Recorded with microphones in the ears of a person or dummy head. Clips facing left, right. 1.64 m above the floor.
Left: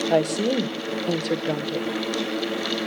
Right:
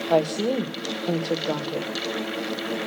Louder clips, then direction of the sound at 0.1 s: Right 1 dB; 10° left (ahead or behind).